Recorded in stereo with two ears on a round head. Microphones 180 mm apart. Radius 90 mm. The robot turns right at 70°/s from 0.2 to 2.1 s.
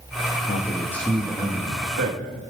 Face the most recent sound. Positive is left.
turn(degrees=-105)